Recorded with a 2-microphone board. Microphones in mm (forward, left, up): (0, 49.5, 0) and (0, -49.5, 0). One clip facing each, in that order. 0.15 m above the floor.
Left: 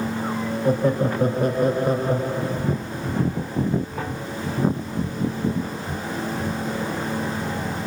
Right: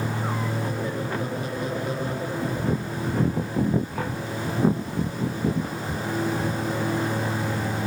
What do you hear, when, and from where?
0.7 s laughter: 55° left (ahead or behind), 4.5 m; by 2.8 s 40° left (ahead or behind), 5.5 m